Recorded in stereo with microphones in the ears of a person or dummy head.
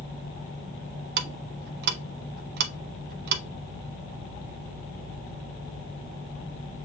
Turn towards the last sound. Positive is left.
turn(degrees=-60)  # may be behind; listen again after turning